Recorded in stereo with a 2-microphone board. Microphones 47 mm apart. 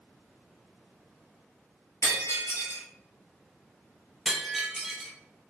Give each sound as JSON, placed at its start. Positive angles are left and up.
{"t": 2.0, "sound": "breaking glass", "side_deg": 65, "distance_m": 2.0}
{"t": 4.2, "sound": "breaking glass", "side_deg": 0, "distance_m": 0.9}